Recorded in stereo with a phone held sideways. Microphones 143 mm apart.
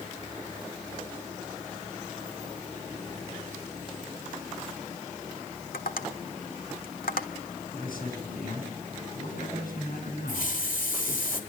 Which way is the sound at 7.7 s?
75° left (ahead or behind).